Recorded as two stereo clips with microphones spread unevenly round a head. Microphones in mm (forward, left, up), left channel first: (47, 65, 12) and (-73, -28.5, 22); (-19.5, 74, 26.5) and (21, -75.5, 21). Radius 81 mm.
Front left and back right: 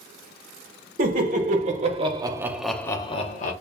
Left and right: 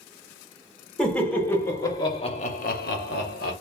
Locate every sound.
1.0 s laughter: 170° right, 1.5 m; by 3.5 s 75° left, 0.8 m